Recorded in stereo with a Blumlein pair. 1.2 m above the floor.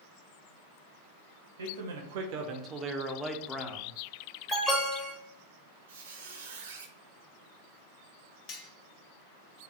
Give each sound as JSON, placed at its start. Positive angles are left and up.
{"t": 1.6, "sound": "a man speaking", "azimuth_deg": -70, "distance_m": 0.9}
{"t": 4.5, "sound": "an alarm", "azimuth_deg": 20, "distance_m": 1.3}
{"t": 5.9, "sound": "a squeak", "azimuth_deg": -60, "distance_m": 0.8}
{"t": 8.5, "sound": "cutlery clinking", "azimuth_deg": 35, "distance_m": 0.9}